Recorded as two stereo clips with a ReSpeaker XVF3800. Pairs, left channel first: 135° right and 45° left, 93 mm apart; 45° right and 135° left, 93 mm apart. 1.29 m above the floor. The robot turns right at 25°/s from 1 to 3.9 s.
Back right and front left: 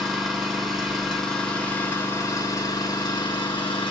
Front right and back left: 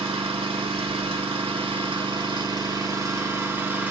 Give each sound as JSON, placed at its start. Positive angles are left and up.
{"t": 0.0, "sound": "an engine running", "azimuth_deg": 135, "distance_m": 1.8}